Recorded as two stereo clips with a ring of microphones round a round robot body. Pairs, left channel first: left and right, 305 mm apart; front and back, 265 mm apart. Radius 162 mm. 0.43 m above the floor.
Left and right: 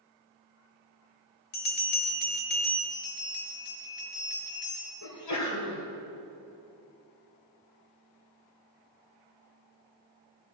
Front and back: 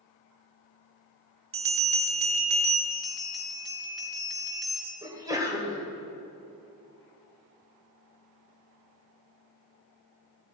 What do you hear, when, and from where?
1.5 s a bell: 145° left, 1.5 m
2.9 s a bell: 90° left, 3.5 m
5.0 s a sneeze: 105° left, 2.5 m